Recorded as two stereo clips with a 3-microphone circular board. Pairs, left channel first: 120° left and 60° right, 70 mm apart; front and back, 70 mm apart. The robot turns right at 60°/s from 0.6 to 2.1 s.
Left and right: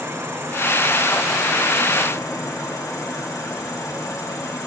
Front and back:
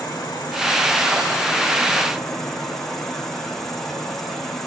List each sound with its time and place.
0.0 s an insect: 5° right, 4 m; by 4.7 s 85° left, 4 m